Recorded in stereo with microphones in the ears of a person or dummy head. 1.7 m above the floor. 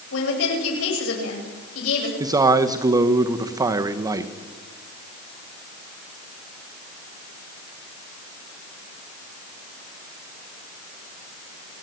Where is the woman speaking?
80° left, 9.5 m.